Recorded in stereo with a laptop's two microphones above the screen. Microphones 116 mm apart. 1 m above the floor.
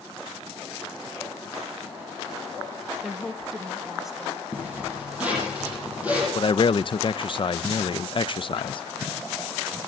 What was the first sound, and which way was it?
A woman speaking, centre (ahead or behind).